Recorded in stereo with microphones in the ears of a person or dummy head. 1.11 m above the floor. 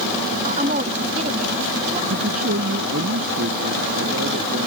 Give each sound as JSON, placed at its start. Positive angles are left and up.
{"t": 0.4, "sound": "a woman speaking", "side_deg": -40}
{"t": 2.1, "sound": "a man speaking", "side_deg": -85}